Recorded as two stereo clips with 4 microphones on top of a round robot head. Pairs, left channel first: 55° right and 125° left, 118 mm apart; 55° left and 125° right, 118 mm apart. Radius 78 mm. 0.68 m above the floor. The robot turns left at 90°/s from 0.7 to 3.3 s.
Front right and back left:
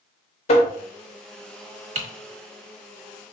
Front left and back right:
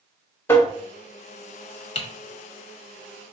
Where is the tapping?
20° right, 0.9 m.